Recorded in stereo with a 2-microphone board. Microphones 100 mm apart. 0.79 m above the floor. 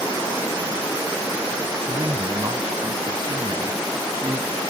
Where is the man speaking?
55° right (ahead or behind); by 4.6 s 45° right (ahead or behind).